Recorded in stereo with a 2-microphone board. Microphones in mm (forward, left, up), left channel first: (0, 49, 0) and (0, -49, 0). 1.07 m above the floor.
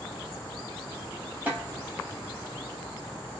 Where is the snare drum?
15° right (ahead or behind), 2.5 m.